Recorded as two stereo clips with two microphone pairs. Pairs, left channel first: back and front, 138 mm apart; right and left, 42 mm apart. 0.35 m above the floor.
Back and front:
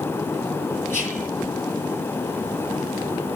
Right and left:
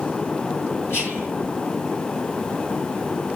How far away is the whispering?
About 7 m.